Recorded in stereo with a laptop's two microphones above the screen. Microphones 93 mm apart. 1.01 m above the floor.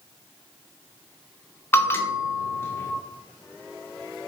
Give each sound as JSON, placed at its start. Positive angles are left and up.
{"t": 1.7, "sound": "a bell", "side_deg": 25, "distance_m": 0.6}